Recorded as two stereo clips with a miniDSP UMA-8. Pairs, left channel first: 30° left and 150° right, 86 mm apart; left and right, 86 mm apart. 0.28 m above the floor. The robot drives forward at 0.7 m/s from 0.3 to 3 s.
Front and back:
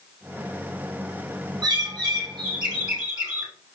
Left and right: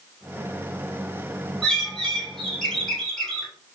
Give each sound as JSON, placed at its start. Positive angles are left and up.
{"t": 1.6, "sound": "a bird", "azimuth_deg": 175, "distance_m": 2.0}